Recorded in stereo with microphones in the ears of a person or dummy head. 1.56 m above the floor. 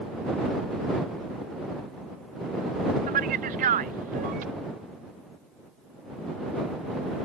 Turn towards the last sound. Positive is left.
turn(degrees=-40)  # may be behind; listen again after turning